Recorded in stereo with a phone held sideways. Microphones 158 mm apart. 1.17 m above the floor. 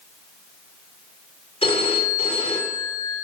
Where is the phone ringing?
40° left (ahead or behind), 2.5 m.